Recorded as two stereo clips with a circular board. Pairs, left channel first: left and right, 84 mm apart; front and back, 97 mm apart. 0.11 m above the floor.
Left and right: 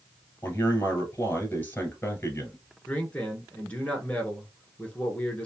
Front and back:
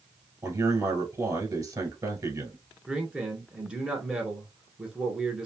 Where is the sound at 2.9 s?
125° left, 1.1 m.